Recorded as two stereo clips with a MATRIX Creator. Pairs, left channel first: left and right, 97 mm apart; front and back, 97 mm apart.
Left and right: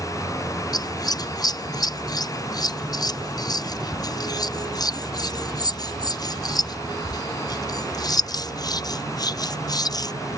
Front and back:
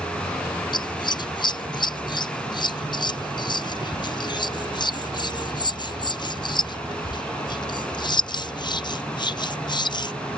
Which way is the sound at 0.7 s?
40° left.